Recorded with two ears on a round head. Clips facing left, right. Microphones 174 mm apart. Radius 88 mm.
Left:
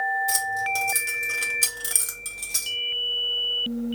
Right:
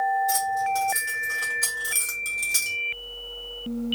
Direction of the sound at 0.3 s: 40° left (ahead or behind).